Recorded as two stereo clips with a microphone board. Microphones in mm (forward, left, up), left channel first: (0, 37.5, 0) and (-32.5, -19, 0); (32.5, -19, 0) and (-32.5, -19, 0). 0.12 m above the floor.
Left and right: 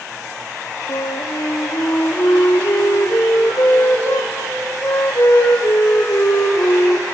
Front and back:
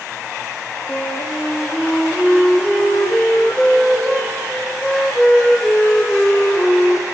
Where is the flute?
85° left, 1.7 m.